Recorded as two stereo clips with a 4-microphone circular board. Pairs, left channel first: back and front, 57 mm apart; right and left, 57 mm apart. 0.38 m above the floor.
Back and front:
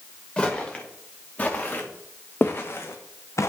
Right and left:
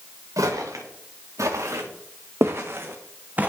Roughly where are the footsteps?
Left.